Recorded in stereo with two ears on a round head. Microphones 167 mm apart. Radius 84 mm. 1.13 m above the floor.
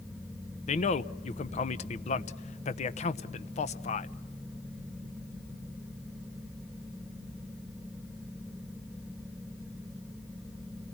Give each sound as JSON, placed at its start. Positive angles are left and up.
{"t": 0.7, "sound": "a man speaking", "side_deg": 35, "distance_m": 0.9}